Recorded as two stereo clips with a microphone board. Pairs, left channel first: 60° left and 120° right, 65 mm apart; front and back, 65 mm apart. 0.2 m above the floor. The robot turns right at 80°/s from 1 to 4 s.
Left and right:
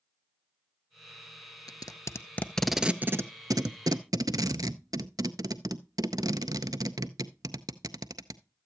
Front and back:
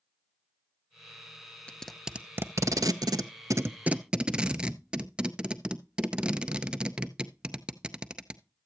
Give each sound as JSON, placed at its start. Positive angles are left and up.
{"t": 1.7, "sound": "tape being pulled", "azimuth_deg": 70, "distance_m": 0.5}